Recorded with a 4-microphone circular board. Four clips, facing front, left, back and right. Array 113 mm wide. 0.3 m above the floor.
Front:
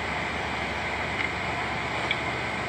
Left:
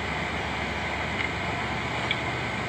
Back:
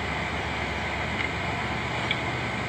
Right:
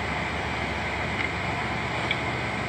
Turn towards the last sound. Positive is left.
No sound to turn to.